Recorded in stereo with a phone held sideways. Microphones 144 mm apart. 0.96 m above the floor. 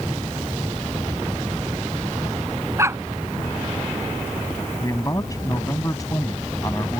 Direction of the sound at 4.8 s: 25° left (ahead or behind).